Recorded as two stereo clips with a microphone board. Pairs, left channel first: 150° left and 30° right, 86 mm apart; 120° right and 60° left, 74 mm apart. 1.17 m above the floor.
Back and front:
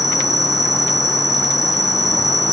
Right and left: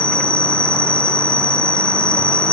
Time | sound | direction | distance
0.0 | an insect | 5° left | ?